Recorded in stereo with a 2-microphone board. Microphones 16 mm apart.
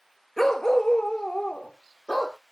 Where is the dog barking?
30° left (ahead or behind), 1.3 m; by 2.4 s 80° left, 2.5 m.